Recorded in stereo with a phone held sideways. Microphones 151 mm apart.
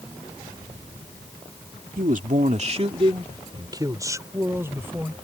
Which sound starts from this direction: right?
A man speaking, at 2.0 s.